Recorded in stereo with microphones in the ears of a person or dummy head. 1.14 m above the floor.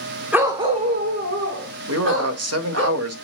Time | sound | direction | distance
0.3 | a dog barking | 15° right (ahead or behind) | 1.3 m
1.9 | a man speaking | 75° right (ahead or behind) | 1.8 m